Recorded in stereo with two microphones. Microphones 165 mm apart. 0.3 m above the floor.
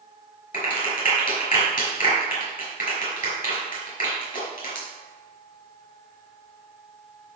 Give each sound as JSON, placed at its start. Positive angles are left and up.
{"t": 0.5, "sound": "a clap", "side_deg": 55, "distance_m": 4.5}